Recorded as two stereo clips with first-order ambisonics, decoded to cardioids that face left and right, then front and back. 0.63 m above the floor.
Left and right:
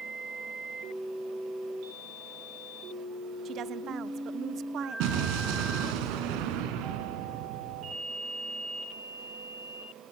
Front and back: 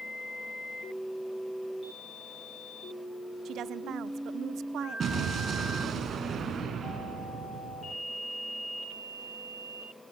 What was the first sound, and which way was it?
A woman speaking, 135° right.